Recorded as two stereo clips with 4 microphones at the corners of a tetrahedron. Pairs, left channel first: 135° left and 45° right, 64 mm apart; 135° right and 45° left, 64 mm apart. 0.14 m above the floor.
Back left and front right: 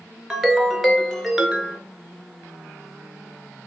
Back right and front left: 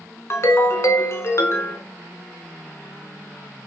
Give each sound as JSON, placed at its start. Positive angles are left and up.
{"t": 0.3, "sound": "a ringtone", "azimuth_deg": -135, "distance_m": 0.5}